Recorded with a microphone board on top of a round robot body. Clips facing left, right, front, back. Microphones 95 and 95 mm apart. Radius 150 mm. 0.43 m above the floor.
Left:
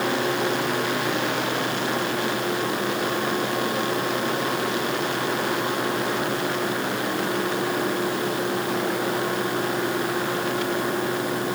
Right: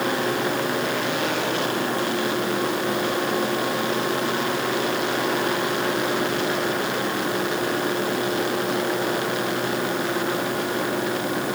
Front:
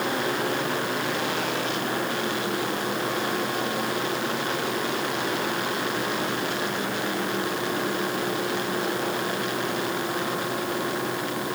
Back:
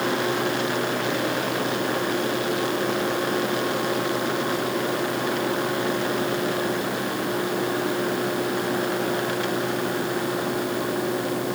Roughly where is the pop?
I don't hear a pop.